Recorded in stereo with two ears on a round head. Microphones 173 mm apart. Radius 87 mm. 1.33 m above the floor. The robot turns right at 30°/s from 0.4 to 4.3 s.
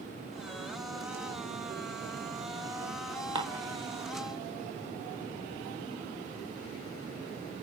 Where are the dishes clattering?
25° right (ahead or behind), 1.0 m; by 3.6 s 15° right (ahead or behind), 1.0 m.